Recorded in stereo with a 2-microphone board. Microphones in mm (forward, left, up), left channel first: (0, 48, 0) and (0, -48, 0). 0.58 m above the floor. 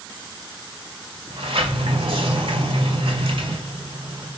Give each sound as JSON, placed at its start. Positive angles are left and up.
{"t": 1.3, "sound": "a sliding door", "side_deg": -70, "distance_m": 2.0}